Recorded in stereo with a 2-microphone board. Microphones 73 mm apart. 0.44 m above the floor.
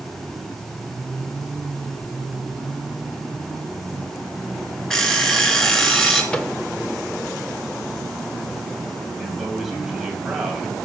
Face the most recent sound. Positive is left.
turn(degrees=-5)  # may be behind; listen again after turning